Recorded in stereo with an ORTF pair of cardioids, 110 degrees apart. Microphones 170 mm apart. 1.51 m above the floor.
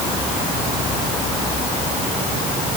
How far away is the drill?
I don't hear a drill.